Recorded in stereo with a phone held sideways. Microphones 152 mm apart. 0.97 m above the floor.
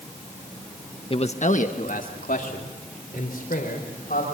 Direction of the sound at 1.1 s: 35° left (ahead or behind).